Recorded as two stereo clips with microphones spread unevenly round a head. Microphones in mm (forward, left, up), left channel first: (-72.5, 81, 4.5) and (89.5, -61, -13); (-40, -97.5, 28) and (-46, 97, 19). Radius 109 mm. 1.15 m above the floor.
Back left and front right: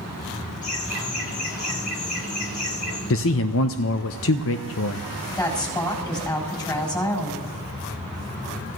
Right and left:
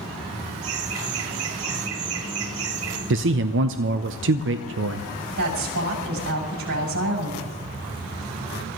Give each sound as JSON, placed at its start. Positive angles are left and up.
{"t": 0.6, "sound": "laughter", "azimuth_deg": 80, "distance_m": 1.7}
{"t": 3.1, "sound": "a man speaking", "azimuth_deg": 110, "distance_m": 0.6}
{"t": 5.4, "sound": "a woman speaking", "azimuth_deg": 65, "distance_m": 6.5}